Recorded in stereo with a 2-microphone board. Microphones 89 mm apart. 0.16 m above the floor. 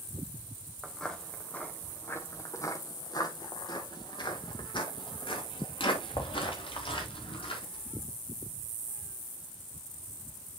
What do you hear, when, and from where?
0.8 s footsteps: 5° left (ahead or behind), 2 m; by 7.9 s 85° left, 5 m